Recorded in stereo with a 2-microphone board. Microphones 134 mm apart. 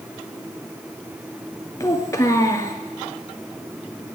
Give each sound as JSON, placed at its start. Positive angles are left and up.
{"t": 1.8, "sound": "a child speaking", "side_deg": 25, "distance_m": 1.0}